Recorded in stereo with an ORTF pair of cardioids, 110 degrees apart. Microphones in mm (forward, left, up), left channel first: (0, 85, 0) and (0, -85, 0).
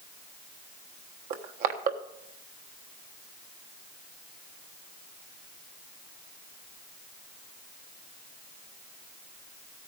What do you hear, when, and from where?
1.3 s crushing: 55° right, 1.2 m